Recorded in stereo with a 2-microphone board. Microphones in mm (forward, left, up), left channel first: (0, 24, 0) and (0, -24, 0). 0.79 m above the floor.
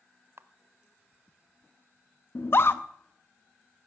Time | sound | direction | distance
0.4 | a camera shutter | 60° right (ahead or behind) | 0.7 m
2.4 | a scream | 50° left (ahead or behind) | 0.8 m